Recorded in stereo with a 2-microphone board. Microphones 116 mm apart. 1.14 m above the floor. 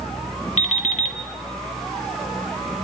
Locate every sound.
0.6 s an alarm clock: 80° left, 1.5 m